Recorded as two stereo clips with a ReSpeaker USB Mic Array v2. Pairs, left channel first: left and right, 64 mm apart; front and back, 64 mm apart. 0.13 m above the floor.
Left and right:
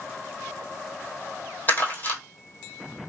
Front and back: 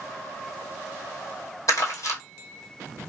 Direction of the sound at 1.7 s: 30° left.